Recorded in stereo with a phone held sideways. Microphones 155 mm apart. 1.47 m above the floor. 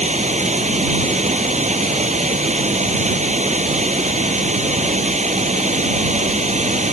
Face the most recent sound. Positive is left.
turn(degrees=-50)  # may be behind; listen again after turning